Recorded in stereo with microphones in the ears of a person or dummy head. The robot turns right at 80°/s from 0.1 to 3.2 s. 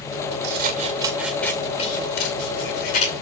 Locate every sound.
0.4 s scissors: 65° right (ahead or behind), 2.5 m; by 3.1 s 35° left (ahead or behind), 2.5 m